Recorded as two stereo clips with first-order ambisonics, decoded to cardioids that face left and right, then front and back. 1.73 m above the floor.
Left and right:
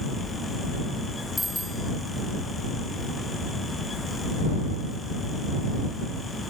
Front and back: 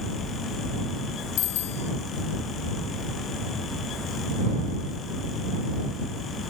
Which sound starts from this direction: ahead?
A bicycle bell, at 1.4 s.